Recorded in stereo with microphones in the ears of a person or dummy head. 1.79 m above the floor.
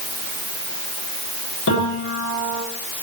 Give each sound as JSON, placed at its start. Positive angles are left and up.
{"t": 1.7, "sound": "a piano", "side_deg": 75, "distance_m": 9.5}